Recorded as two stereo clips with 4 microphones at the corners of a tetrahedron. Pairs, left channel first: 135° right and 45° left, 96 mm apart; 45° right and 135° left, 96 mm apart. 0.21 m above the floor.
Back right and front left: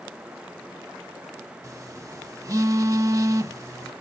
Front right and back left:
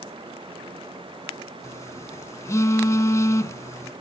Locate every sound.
1.6 s a phone buzzing: straight ahead, 0.7 m